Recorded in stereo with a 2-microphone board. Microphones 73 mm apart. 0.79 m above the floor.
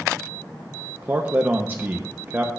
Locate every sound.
1.0 s a man speaking: 25° right (ahead or behind), 0.5 m